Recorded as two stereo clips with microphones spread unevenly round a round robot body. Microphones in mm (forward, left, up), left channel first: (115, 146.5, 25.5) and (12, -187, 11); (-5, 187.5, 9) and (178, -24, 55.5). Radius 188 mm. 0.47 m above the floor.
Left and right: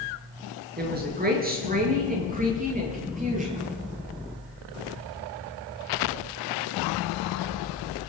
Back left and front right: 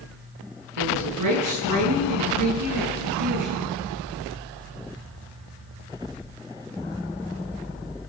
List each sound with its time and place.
0.8 s a woman speaking: 45° right, 8 m; by 3.6 s 40° right, 11.5 m